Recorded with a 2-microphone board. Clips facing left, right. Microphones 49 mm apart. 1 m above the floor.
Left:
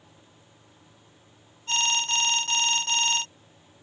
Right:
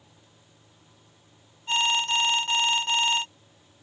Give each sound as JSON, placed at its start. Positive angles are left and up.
{"t": 1.7, "sound": "an alarm", "side_deg": -15}